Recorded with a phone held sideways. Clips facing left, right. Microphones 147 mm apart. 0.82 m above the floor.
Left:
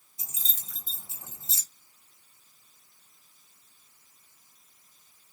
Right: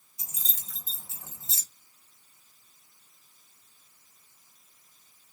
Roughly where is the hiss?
I don't hear a hiss.